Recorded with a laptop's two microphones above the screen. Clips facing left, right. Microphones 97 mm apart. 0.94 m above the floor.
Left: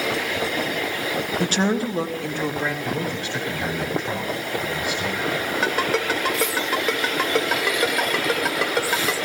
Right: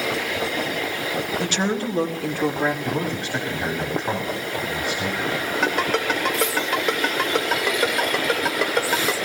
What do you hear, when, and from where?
1.4 s a woman speaking: 45° left (ahead or behind), 0.9 m; by 2.7 s 25° right (ahead or behind), 1.5 m
2.8 s a man speaking: 25° right (ahead or behind), 2.5 m
5.6 s a ringtone: centre (ahead or behind), 3 m